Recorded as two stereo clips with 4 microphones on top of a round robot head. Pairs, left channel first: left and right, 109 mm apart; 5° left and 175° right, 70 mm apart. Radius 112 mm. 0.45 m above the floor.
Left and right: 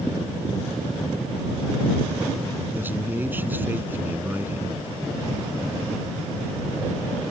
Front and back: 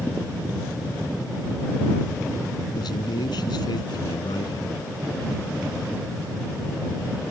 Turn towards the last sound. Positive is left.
turn(degrees=-20)